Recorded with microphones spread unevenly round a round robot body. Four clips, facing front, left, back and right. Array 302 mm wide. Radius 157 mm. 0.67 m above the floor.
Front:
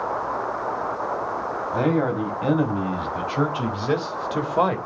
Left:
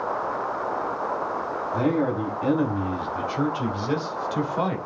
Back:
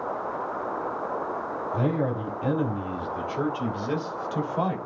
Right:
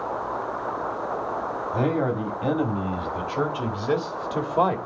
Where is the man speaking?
20° right, 4 m; by 4.8 s 25° right, 2.5 m.